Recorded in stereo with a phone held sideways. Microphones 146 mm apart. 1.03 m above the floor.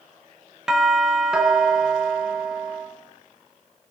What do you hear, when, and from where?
0.7 s a doorbell: 5° right (ahead or behind), 1.1 m